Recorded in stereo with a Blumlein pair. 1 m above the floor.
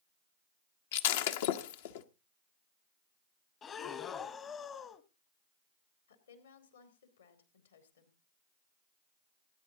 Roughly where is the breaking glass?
Ahead left.